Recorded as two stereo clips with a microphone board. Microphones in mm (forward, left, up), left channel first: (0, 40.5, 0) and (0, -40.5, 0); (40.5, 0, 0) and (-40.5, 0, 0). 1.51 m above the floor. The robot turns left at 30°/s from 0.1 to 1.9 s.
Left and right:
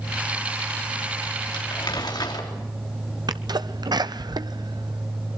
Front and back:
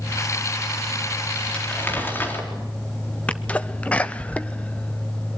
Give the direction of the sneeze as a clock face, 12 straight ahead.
2 o'clock.